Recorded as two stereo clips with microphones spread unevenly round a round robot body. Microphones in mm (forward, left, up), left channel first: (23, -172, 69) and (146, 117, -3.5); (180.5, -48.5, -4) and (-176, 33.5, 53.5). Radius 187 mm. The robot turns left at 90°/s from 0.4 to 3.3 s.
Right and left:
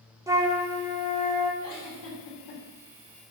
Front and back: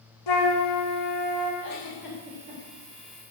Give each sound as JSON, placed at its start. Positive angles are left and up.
{"t": 0.3, "sound": "a flute", "azimuth_deg": -10, "distance_m": 1.8}
{"t": 1.6, "sound": "a giggle", "azimuth_deg": -65, "distance_m": 3.5}